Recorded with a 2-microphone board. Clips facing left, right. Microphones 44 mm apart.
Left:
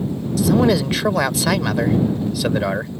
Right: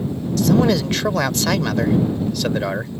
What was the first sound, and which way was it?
A man speaking, 5° left (ahead or behind).